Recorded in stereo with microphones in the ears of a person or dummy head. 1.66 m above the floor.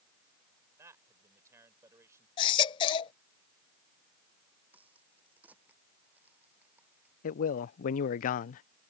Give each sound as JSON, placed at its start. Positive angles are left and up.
{"t": 0.8, "sound": "a man speaking", "side_deg": -20}
{"t": 2.4, "sound": "a baby crying", "side_deg": 30}
{"t": 4.7, "sound": "a crack", "side_deg": -10}
{"t": 7.2, "sound": "a man speaking", "side_deg": 55}